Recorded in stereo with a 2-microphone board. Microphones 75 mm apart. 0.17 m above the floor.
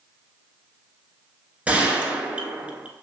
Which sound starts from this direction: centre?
A gunshot, at 1.7 s.